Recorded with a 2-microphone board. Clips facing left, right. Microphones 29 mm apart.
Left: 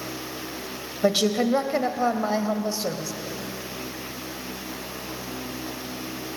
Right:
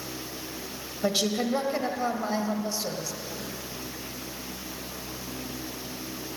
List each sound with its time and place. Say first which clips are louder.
1.0 s a woman speaking: left 5 dB; 20° left (ahead or behind), 1.0 m